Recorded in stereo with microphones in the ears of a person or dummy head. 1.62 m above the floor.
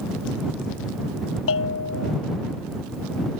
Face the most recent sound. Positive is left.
turn(degrees=70)  # may be behind; listen again after turning